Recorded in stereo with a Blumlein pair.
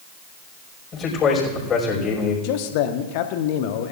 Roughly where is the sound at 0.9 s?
Ahead left.